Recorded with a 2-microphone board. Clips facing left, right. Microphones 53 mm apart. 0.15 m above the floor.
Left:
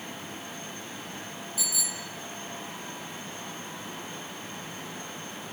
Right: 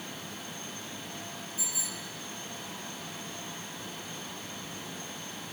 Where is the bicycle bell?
75° left (ahead or behind), 3 m.